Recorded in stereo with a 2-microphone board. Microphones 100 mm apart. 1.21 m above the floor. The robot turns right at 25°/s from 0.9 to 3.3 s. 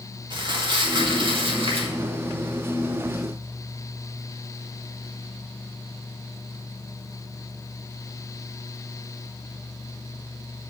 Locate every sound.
0.3 s crumpling: 50° right (ahead or behind), 2 m; by 1.9 s 75° right (ahead or behind), 2 m